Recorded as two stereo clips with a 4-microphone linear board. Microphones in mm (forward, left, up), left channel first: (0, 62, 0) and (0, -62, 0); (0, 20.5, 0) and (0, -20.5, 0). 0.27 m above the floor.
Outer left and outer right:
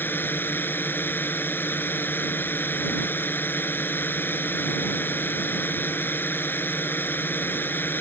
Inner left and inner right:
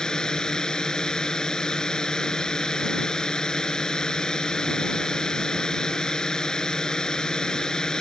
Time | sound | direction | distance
0.0 | a drone | 15° left (ahead or behind) | ?